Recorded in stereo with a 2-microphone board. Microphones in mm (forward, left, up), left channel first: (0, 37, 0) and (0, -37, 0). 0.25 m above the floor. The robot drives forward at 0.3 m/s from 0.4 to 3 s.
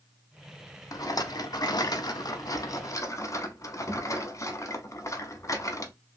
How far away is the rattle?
About 0.6 m.